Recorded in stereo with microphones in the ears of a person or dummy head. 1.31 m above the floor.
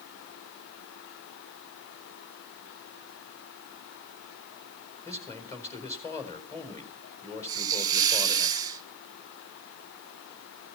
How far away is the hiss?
About 1.3 m.